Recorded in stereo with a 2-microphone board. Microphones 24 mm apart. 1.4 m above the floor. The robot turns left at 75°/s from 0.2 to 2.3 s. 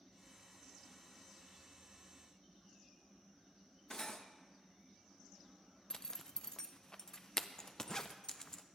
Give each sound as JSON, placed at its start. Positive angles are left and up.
{"t": 3.9, "sound": "cutlery clinking", "side_deg": 25, "distance_m": 0.7}
{"t": 5.9, "sound": "a zipper", "side_deg": 25, "distance_m": 0.5}